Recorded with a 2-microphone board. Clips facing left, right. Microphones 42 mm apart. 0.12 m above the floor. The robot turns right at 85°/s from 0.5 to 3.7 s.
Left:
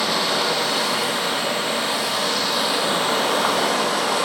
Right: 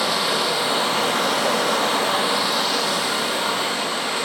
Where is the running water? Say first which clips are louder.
Even; 175° right, 2.5 m; by 4.3 s 95° left, 2.5 m.